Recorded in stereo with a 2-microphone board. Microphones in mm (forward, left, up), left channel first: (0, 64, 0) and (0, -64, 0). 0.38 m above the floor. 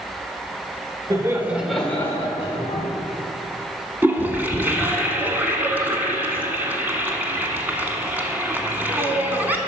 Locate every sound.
1.1 s laughter: 30° right (ahead or behind), 1.3 m; by 2.9 s 45° left (ahead or behind), 1.8 m
4.0 s a toilet flushing: 15° right (ahead or behind), 1.2 m